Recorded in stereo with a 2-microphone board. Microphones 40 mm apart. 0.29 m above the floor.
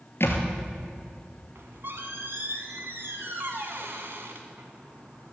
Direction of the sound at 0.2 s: 65° left (ahead or behind).